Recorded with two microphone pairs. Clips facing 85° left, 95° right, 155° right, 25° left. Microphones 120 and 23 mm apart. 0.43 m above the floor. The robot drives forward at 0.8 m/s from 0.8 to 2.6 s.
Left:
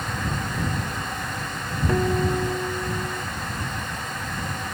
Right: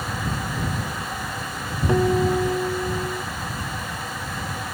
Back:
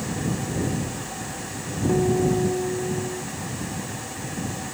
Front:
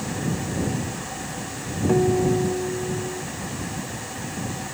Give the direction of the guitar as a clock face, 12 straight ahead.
1 o'clock.